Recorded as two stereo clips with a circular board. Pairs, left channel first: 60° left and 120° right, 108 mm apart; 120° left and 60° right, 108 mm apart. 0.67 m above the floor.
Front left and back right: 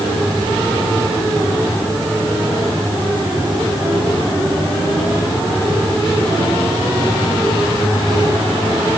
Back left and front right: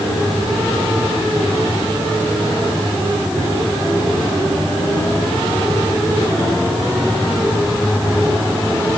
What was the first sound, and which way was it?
Only background noise.